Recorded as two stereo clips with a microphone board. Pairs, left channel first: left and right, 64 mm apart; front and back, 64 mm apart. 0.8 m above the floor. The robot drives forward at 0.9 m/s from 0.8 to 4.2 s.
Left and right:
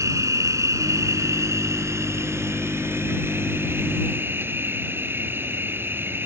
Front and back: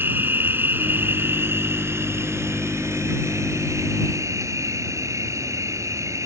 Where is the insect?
125° right; by 6.3 s 145° right.